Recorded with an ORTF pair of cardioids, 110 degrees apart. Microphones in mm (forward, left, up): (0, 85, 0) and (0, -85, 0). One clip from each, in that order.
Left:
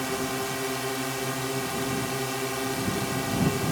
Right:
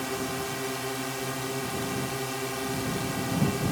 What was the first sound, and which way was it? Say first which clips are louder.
A drone: left 2 dB; 10° left.